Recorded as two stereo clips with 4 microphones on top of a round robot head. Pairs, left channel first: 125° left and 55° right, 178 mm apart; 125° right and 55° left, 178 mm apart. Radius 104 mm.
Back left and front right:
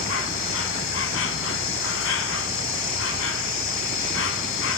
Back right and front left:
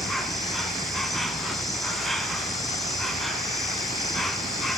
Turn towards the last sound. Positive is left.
turn(degrees=145)